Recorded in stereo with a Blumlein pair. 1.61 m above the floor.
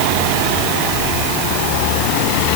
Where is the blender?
No blender in this recording.